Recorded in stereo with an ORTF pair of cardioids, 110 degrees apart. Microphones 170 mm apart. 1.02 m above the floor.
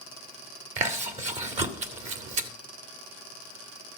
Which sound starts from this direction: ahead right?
Chewing, at 0.8 s.